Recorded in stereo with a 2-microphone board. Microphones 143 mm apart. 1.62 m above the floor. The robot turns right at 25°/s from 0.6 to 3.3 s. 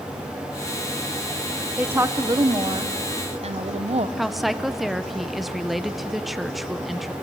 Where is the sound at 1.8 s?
165° right, 0.9 m; by 4.1 s 130° right, 0.9 m.